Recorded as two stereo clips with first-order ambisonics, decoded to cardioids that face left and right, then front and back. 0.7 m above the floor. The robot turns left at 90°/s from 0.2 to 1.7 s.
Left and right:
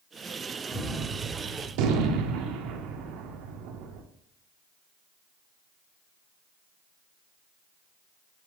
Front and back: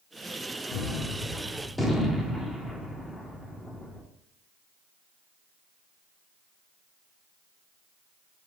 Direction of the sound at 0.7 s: 5° left.